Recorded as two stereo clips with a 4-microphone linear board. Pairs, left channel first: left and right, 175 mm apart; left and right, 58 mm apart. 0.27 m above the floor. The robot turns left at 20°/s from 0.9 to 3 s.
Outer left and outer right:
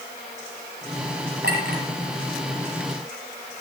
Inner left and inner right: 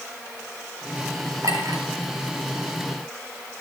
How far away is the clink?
About 4.5 m.